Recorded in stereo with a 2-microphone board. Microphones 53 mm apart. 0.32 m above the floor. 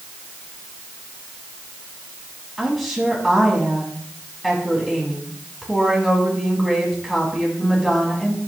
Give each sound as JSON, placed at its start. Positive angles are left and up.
{"t": 2.6, "sound": "a woman speaking", "side_deg": 0, "distance_m": 2.5}